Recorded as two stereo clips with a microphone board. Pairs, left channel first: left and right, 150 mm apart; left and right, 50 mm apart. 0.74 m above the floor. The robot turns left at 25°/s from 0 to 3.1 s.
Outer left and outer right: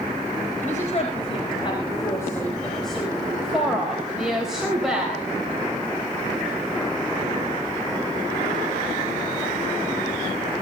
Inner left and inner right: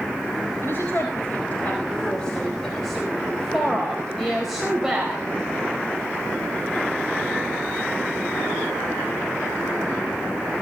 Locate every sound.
0.6 s a woman speaking: 60° left, 4 m; by 5.2 s 5° right, 4 m